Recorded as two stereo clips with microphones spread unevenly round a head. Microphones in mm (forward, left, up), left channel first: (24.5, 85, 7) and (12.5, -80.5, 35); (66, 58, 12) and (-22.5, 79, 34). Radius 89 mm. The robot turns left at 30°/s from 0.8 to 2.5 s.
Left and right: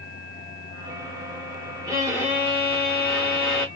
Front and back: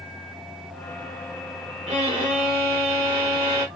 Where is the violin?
165° right, 0.9 m; by 3.7 s 175° left, 0.9 m.